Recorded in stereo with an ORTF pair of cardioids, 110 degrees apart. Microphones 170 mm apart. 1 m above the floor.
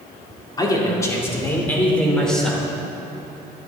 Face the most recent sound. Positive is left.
turn(degrees=0)